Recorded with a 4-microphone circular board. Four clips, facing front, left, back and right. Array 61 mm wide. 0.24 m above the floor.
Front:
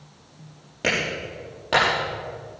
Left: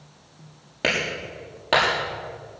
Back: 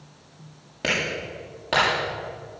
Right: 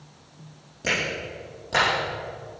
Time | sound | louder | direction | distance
0.8 | a clap | left 2 dB, front 1 dB | 90° left | 7 m